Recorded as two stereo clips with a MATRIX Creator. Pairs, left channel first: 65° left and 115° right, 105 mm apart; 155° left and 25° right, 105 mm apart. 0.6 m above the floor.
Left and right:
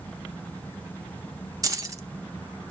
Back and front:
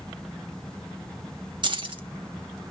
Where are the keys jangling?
60° right, 0.6 m.